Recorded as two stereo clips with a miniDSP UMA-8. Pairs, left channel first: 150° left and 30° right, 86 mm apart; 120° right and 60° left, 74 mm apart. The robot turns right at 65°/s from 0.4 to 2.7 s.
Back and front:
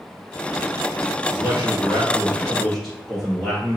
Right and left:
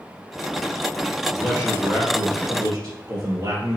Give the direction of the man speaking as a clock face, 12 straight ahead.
1 o'clock.